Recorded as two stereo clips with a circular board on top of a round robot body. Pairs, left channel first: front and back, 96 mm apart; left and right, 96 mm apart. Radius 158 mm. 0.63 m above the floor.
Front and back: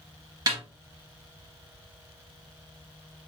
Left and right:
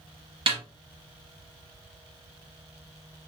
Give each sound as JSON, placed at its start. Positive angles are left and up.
{"t": 0.5, "sound": "a snare drum", "azimuth_deg": -130, "distance_m": 0.7}